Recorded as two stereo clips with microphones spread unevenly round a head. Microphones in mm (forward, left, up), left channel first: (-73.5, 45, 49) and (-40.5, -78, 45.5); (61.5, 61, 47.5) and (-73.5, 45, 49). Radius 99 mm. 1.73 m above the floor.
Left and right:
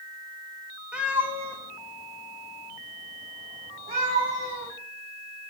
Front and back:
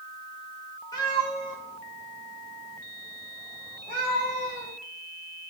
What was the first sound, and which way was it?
A cat meowing, straight ahead.